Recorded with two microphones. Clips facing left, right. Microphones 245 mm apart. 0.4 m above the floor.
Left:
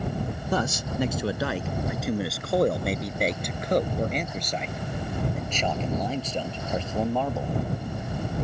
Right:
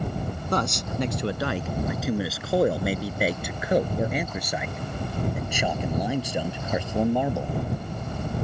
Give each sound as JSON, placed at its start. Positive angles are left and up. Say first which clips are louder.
{"t": 0.5, "sound": "a man speaking", "louder": "even", "side_deg": 5}